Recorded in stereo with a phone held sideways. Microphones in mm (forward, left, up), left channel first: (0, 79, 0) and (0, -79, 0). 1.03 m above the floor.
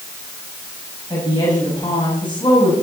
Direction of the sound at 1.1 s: 30° left (ahead or behind).